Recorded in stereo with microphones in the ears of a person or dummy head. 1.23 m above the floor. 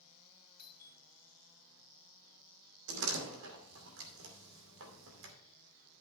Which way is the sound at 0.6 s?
50° left (ahead or behind).